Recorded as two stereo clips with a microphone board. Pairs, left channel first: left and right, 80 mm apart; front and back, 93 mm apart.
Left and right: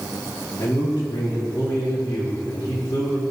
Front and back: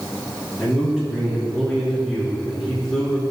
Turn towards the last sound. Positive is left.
turn(degrees=85)